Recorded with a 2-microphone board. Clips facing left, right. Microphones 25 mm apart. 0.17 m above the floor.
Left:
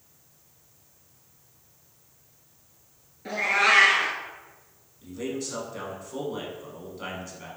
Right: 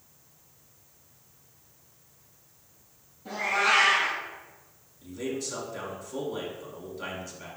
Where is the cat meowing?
65° left (ahead or behind), 1.0 m.